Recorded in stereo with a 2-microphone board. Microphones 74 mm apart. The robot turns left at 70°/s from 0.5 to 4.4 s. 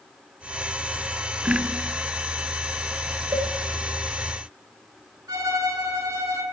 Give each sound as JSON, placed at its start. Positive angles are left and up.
{"t": 1.5, "sound": "a snare drum", "side_deg": -45, "distance_m": 0.8}
{"t": 3.3, "sound": "a cowbell", "side_deg": -70, "distance_m": 1.0}
{"t": 5.3, "sound": "a violin", "side_deg": -60, "distance_m": 3.0}